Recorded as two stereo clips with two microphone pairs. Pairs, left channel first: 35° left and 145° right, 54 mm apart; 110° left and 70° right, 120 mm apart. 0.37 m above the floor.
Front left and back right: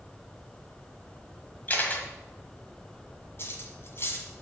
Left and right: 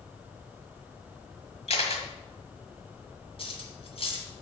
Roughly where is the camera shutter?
Left.